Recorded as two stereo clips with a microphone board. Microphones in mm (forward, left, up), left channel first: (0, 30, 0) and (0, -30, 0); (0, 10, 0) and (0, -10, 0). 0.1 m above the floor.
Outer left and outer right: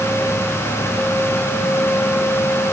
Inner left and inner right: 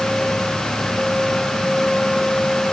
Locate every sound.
Only background noise.